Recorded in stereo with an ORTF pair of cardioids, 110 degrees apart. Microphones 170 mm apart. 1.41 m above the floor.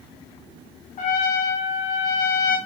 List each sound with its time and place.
1.0 s a trumpet: 50° left, 1.3 m